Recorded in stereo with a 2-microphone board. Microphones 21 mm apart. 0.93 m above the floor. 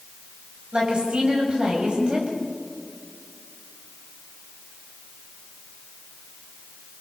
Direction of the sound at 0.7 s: 55° right (ahead or behind).